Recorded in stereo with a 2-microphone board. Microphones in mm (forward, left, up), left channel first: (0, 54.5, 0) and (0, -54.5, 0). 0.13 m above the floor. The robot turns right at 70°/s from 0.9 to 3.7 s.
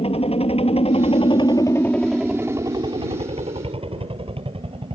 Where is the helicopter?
90° left; by 5.0 s 70° right.